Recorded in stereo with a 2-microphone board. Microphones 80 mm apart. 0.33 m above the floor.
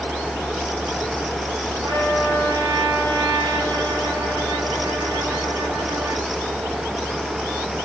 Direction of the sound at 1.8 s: 55° right (ahead or behind).